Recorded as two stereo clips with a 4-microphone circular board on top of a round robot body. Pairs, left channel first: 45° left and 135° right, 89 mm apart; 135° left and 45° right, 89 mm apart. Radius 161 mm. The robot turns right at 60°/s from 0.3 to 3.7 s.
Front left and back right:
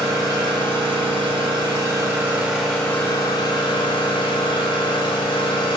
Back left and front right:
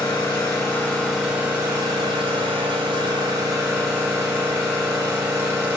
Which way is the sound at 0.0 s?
175° left.